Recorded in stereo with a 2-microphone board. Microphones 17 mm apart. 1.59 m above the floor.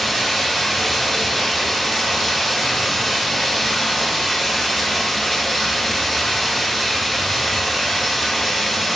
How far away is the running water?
About 1.9 m.